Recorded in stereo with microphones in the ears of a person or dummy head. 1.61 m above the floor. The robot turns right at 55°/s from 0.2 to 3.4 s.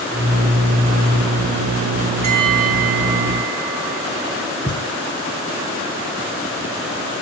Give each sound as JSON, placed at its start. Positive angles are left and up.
{"t": 2.2, "sound": "a bell", "azimuth_deg": -130, "distance_m": 2.5}
{"t": 4.7, "sound": "a thud", "side_deg": 25, "distance_m": 3.0}